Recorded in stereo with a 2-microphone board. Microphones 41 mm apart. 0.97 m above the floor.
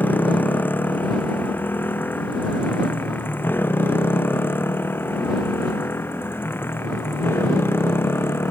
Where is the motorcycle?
50° left (ahead or behind); by 8.5 s 70° left (ahead or behind).